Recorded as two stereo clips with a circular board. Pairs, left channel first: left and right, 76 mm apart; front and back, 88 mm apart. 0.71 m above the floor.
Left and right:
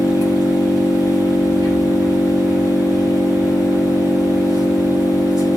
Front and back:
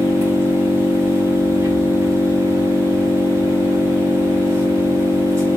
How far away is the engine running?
About 4.5 m.